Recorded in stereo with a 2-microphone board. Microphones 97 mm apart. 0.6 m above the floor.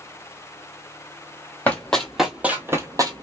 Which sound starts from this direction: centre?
Running footsteps, at 1.7 s.